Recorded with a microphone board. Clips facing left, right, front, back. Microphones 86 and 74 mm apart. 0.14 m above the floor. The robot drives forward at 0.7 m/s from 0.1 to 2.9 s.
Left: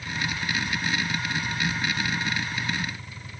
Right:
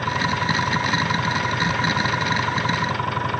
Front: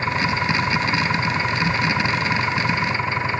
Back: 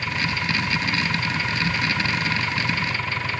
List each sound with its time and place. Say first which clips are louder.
0.0 s an engine running: right 9 dB, front 5 dB; 60° right; by 3.4 s 70° right